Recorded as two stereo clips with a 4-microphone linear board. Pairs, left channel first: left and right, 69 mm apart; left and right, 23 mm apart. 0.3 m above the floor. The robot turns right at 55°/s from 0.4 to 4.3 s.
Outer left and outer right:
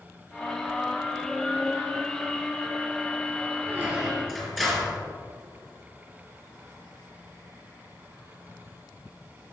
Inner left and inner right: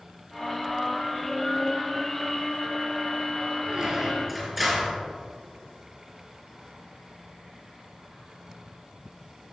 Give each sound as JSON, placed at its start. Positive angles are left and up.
{"t": 3.7, "sound": "a squeak", "azimuth_deg": -30, "distance_m": 3.0}